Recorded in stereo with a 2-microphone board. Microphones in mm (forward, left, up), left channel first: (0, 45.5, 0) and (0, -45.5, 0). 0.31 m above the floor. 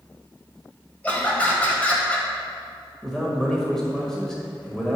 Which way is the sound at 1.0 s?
15° left (ahead or behind).